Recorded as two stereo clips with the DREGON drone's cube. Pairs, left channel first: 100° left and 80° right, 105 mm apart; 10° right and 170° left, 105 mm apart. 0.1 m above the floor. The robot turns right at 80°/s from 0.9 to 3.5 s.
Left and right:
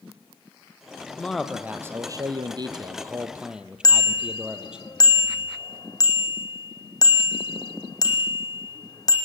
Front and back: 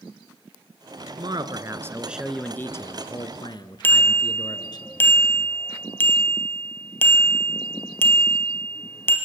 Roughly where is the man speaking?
Behind.